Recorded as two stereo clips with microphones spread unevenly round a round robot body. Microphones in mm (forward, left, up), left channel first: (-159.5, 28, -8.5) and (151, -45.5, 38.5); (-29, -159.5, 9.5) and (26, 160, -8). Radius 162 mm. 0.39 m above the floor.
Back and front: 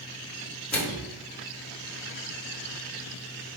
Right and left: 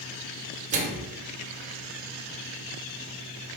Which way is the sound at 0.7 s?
105° left.